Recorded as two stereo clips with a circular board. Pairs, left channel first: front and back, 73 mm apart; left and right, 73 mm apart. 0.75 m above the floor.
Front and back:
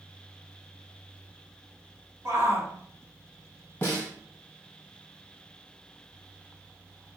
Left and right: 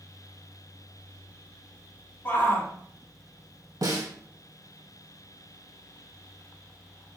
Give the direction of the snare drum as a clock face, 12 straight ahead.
2 o'clock.